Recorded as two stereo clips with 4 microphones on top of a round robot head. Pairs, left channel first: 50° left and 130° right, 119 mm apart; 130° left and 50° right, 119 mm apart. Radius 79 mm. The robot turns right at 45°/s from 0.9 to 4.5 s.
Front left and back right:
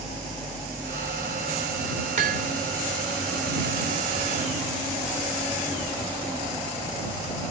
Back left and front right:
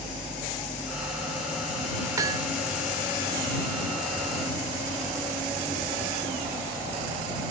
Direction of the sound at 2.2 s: 110° right.